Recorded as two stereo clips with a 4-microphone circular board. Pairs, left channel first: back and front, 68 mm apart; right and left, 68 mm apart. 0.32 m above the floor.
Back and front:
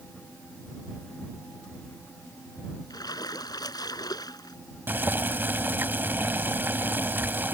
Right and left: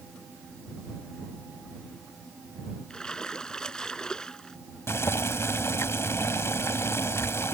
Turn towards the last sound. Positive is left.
turn(degrees=-55)